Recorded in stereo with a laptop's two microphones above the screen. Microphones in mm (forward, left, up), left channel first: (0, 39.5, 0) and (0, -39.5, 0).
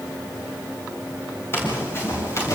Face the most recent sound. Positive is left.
turn(degrees=40)  # may be behind; listen again after turning